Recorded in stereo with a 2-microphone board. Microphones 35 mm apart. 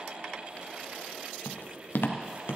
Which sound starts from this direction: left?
Footsteps, at 1.4 s.